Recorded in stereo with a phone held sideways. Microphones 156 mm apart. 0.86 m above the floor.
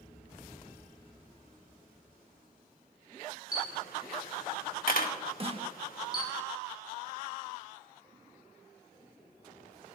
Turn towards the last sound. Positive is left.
turn(degrees=-35)  # may be behind; listen again after turning